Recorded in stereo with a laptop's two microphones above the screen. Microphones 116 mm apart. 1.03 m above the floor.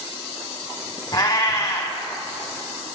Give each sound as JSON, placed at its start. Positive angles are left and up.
{"t": 1.1, "sound": "a cat meowing", "side_deg": 35, "distance_m": 1.0}